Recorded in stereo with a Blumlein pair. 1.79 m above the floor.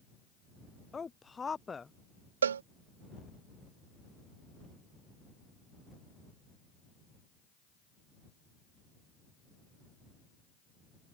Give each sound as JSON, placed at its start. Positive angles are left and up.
{"t": 0.9, "sound": "a woman speaking", "azimuth_deg": 15}
{"t": 2.4, "sound": "a cowbell", "azimuth_deg": -65}